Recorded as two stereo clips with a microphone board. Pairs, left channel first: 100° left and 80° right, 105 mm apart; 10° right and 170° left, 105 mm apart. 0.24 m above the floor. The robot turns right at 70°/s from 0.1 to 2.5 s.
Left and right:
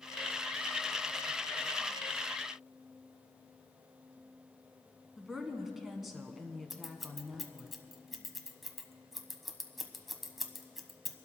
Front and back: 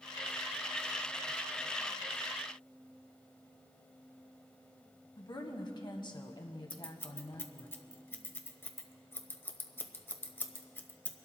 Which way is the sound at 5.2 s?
10° left.